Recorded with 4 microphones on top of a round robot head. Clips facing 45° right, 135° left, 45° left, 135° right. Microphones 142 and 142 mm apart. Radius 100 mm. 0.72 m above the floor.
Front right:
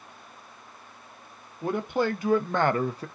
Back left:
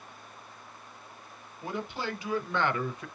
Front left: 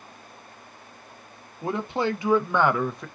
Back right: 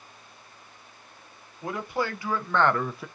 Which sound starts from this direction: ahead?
A man speaking, at 1.6 s.